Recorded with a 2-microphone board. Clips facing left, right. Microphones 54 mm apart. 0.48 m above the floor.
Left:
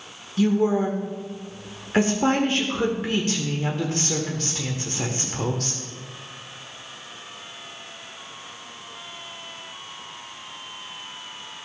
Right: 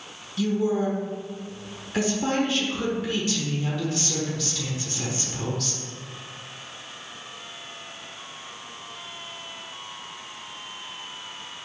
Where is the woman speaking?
40° left (ahead or behind), 1.1 m.